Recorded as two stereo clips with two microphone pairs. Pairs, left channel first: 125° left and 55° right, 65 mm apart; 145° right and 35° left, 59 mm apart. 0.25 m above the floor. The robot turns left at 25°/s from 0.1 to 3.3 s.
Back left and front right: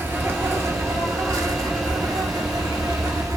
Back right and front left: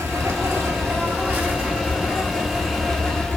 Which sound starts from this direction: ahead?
An insect, at 0.0 s.